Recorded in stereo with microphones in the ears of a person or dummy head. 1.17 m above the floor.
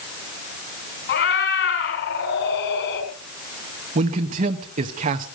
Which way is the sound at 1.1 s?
65° left (ahead or behind).